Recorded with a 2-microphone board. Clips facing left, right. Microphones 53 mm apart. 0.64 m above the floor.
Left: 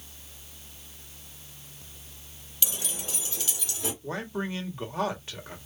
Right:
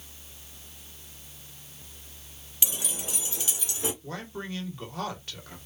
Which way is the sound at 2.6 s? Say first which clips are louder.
Right 1 dB; 15° right (ahead or behind).